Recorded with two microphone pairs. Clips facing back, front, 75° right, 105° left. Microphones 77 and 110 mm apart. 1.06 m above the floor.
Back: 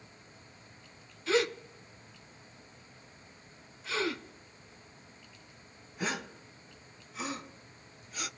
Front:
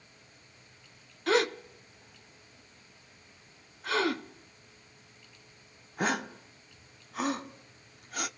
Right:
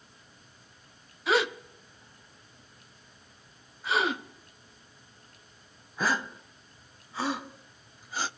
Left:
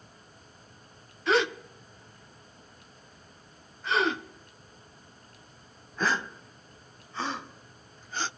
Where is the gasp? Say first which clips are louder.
Front 2 dB, left 1 dB; 5° left, 0.6 m.